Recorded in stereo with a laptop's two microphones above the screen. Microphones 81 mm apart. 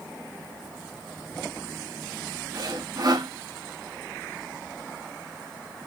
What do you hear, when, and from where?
2.5 s sawing: 55° right (ahead or behind), 0.9 m